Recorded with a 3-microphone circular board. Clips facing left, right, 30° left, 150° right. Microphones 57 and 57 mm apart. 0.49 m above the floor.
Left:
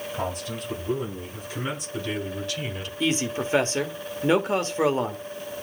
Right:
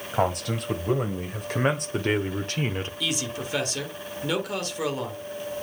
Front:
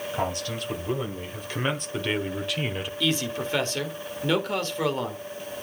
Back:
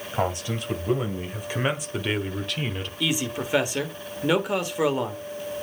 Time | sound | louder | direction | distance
0.1 | a man speaking | right 8 dB, back 4 dB | 85° right | 2.5 m
3.0 | a man speaking | left 8 dB, even | 135° left | 1.5 m